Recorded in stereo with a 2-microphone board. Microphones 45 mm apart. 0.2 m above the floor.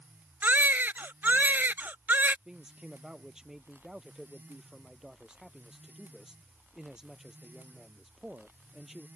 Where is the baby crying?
45° right (ahead or behind).